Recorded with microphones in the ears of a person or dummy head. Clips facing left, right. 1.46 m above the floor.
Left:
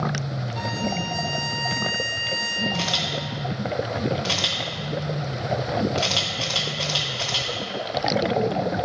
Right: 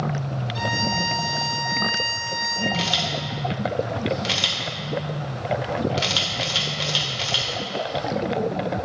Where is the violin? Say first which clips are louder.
Even; 50° right (ahead or behind), 2.5 m.